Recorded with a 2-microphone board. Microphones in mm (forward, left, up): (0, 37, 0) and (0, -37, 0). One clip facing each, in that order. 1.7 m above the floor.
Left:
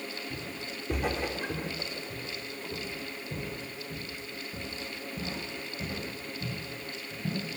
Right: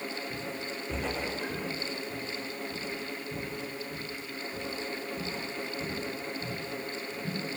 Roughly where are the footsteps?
Centre.